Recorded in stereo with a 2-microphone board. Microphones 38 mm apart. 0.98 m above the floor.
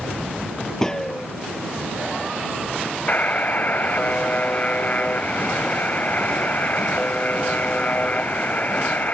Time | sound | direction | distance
0.8 | a gunshot | 15° left (ahead or behind) | ?
3.1 | a buzzer | 45° left (ahead or behind) | ?